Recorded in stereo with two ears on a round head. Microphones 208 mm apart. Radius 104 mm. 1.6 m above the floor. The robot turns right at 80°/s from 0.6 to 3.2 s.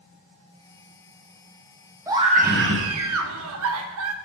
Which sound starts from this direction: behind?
A scream, at 2.1 s.